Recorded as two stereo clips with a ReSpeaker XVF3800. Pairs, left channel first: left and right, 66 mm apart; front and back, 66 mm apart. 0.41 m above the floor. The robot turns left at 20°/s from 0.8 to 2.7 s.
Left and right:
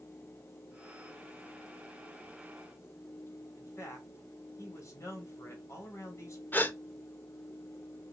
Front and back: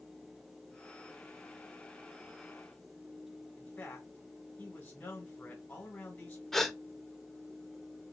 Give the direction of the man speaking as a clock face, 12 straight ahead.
10 o'clock.